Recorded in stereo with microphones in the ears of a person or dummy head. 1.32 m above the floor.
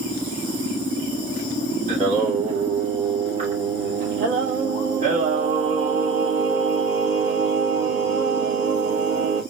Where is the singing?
50° right (ahead or behind), 2.5 m.